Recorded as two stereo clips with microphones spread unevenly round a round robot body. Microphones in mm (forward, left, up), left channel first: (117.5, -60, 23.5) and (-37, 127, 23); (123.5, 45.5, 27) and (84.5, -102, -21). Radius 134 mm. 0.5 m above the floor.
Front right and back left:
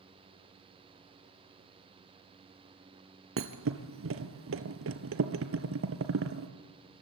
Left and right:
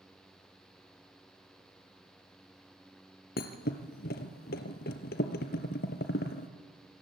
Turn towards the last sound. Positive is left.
turn(degrees=95)